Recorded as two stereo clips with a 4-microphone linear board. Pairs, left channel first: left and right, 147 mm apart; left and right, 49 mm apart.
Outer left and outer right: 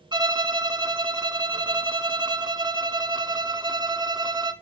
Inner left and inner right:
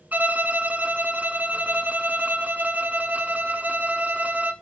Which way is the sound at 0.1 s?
30° right (ahead or behind).